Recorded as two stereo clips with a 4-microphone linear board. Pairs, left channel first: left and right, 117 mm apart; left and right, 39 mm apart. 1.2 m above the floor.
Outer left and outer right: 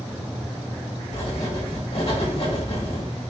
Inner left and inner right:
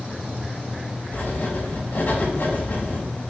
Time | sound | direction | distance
1.1 | writing | 50° left (ahead or behind) | 1.9 m